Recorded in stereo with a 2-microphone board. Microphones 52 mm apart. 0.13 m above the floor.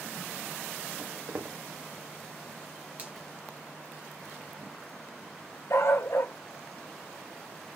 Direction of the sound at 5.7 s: 60° left (ahead or behind).